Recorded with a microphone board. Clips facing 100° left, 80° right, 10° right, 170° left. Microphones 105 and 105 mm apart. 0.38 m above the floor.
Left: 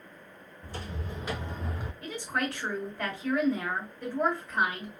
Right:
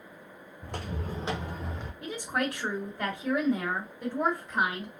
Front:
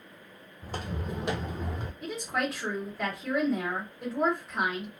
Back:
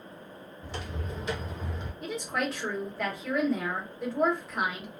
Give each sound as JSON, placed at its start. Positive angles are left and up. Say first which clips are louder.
{"t": 0.6, "sound": "footsteps", "louder": "right 3 dB, front 3 dB", "azimuth_deg": -60, "distance_m": 1.2}
{"t": 2.0, "sound": "a woman speaking", "louder": "right 2 dB, even", "azimuth_deg": -95, "distance_m": 1.4}